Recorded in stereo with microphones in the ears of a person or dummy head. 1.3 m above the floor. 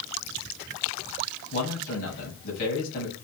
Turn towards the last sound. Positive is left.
turn(degrees=55)  # may be behind; listen again after turning